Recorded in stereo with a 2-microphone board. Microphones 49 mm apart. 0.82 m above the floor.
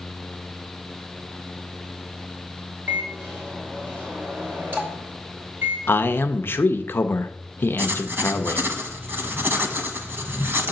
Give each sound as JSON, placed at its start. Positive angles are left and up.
{"t": 2.9, "sound": "a microwave", "side_deg": -50, "distance_m": 2.5}
{"t": 5.9, "sound": "a man speaking", "side_deg": 45, "distance_m": 0.6}
{"t": 7.8, "sound": "writing", "side_deg": -50, "distance_m": 0.9}